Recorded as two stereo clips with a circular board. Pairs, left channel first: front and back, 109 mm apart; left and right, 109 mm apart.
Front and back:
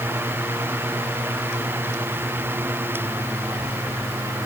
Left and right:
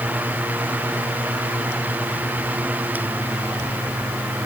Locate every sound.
Only background noise.